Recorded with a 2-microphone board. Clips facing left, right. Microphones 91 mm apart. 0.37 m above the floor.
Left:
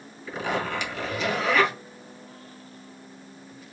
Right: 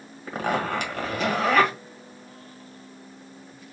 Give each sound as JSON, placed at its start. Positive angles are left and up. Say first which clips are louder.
{"t": 0.3, "sound": "a zipper", "louder": "right 2 dB", "side_deg": -50, "distance_m": 1.5}